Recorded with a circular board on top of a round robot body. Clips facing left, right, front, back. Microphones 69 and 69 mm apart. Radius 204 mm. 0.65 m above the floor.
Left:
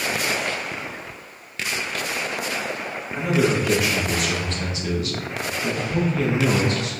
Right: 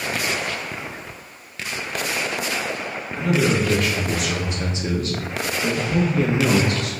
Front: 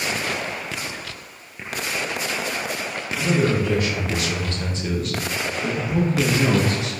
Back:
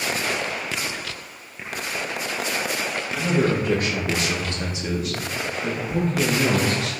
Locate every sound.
3.1 s a man speaking: 145° left, 1.0 m; by 6.9 s 65° right, 1.4 m